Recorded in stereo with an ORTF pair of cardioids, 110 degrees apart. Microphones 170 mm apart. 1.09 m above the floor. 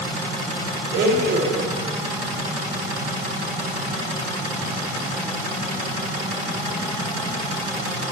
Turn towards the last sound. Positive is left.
turn(degrees=-60)